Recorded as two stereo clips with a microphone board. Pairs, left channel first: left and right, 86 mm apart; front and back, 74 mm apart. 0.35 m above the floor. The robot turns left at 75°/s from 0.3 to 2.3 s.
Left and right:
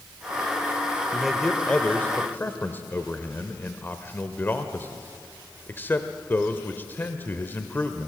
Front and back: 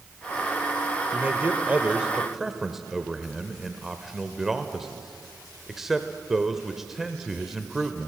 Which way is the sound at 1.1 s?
170° right.